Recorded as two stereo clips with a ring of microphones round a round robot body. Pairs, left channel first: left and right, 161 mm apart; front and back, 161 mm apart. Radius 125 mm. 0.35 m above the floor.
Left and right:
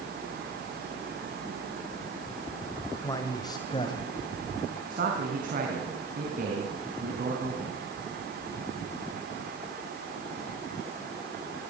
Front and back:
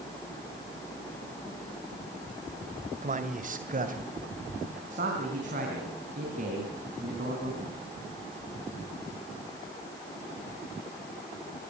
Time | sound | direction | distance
3.0 | a man speaking | 155° left | 1.9 m
4.9 | a man speaking | 135° right | 4 m